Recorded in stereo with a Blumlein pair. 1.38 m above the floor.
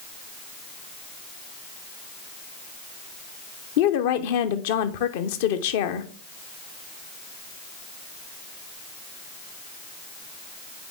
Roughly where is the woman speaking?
Ahead left.